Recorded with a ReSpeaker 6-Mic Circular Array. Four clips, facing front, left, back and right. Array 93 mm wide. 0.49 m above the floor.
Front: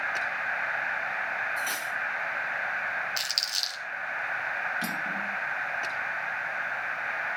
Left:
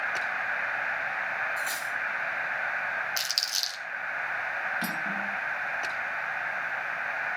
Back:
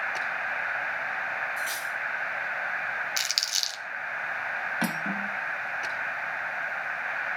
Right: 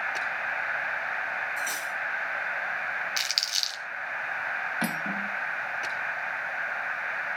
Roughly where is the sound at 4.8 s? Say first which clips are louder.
Right 1 dB, back 2 dB; behind right.